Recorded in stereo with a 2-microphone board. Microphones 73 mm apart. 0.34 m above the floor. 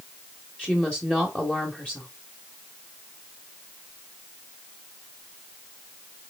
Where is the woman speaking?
15° left (ahead or behind), 1.0 m.